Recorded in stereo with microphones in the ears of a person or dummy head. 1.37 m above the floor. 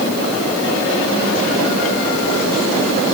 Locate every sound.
Only background noise.